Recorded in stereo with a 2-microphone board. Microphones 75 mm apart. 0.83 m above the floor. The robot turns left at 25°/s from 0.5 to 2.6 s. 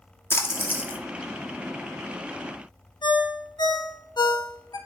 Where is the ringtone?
80° left, 1.1 m.